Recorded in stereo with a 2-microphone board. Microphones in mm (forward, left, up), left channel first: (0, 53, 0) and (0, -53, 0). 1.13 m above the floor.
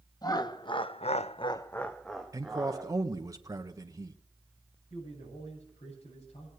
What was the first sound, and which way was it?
Laughter, 40° left (ahead or behind).